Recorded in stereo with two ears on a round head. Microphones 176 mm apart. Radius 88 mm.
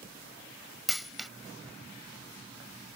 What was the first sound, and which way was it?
A dropped coin, centre (ahead or behind).